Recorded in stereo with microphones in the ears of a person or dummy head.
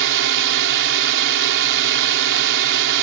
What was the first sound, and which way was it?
A drone, 65° right (ahead or behind).